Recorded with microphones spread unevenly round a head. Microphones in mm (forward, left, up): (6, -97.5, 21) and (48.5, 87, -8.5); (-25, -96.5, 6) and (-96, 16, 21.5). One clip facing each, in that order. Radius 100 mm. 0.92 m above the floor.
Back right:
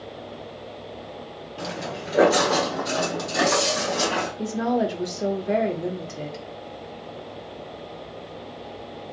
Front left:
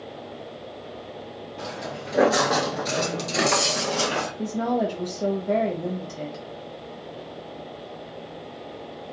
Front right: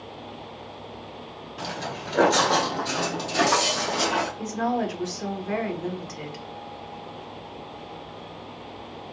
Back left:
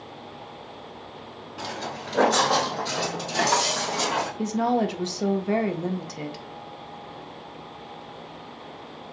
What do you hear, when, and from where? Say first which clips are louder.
1.6 s footsteps: back right 3 dB, even; 160° right, 1.1 m; by 4.3 s 30° left, 1.4 m
4.4 s a woman speaking: back right 1 dB, back left 3 dB; 165° left, 0.6 m